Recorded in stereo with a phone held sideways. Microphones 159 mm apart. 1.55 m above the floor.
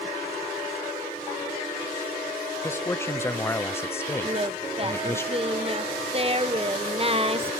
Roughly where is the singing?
Right.